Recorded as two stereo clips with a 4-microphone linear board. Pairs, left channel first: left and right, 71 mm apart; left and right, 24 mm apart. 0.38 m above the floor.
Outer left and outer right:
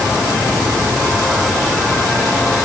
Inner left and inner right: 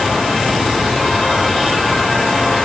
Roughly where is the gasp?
No gasp in this recording.